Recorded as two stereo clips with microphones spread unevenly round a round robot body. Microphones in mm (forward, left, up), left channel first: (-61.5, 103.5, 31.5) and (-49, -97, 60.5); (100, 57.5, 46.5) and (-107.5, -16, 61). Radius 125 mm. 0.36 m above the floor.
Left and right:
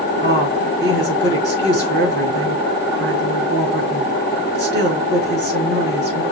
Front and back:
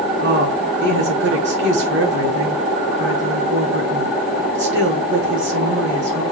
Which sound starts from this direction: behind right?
A woman speaking, at 0.2 s.